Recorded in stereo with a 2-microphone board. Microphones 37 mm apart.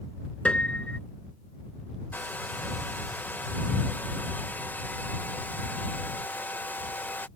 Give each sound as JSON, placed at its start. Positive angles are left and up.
{"t": 0.5, "sound": "a piano", "side_deg": 35}
{"t": 2.1, "sound": "a hair dryer", "side_deg": 60}